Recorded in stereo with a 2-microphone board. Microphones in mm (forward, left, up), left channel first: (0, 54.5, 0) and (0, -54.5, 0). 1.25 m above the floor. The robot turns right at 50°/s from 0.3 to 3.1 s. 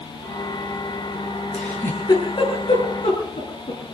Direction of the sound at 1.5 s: 5° left (ahead or behind).